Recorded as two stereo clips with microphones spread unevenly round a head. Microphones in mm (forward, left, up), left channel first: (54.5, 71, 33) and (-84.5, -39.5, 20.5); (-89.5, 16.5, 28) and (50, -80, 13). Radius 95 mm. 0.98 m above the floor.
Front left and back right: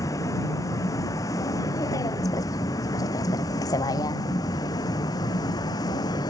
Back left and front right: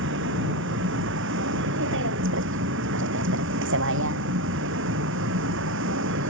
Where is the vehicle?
35° right.